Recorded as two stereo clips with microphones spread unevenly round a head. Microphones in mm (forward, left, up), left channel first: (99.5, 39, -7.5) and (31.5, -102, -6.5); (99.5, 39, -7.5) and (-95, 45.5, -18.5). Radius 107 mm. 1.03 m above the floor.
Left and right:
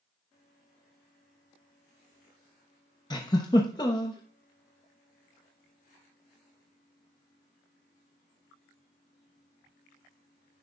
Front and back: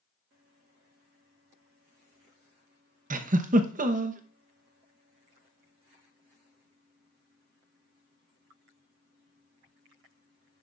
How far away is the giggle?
About 0.9 m.